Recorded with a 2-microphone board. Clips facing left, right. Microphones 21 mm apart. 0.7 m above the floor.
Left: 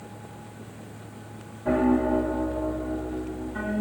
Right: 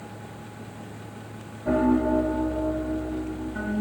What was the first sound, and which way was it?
A piano, 20° left (ahead or behind).